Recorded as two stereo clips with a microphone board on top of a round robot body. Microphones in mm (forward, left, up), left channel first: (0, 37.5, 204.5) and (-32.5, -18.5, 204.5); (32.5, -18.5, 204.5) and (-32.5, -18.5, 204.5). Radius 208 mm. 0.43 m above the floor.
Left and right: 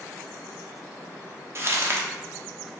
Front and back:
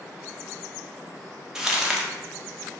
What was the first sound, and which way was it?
Crumpling, 105° right.